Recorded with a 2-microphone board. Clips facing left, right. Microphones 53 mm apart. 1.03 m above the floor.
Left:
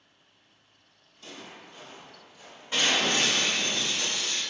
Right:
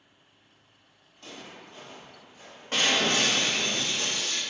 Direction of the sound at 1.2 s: 55° right (ahead or behind).